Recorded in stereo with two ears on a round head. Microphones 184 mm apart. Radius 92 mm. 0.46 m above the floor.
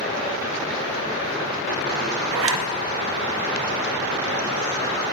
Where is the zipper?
65° right (ahead or behind), 0.5 m.